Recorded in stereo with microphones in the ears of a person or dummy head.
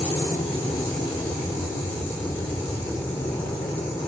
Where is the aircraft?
15° left (ahead or behind).